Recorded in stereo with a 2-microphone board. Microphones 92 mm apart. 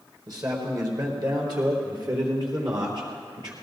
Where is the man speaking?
40° right (ahead or behind), 3.5 m; by 3.5 s 55° right (ahead or behind), 5 m.